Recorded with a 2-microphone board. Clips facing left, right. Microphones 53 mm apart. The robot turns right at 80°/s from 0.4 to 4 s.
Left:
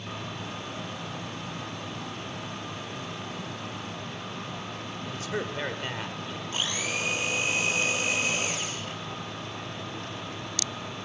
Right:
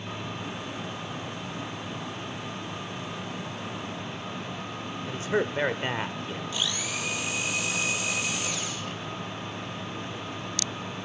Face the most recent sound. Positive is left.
turn(degrees=40)  # may be behind; listen again after turning